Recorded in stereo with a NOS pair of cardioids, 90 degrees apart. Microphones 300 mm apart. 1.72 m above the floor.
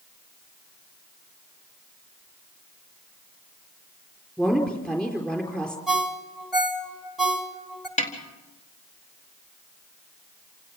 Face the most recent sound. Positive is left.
turn(degrees=20)